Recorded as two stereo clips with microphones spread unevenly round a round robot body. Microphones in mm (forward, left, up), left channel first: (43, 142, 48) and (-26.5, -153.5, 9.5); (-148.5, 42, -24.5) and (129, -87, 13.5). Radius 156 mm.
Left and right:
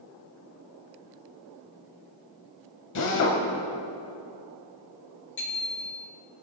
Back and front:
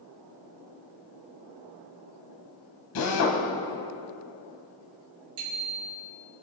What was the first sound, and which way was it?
A drill, 115° left.